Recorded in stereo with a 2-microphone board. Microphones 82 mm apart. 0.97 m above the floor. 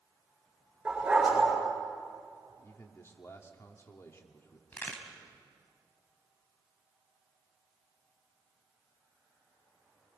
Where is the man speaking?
35° left (ahead or behind), 1.9 m.